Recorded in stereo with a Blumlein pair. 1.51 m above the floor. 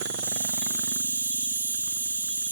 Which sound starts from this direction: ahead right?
An insect, at 0.0 s.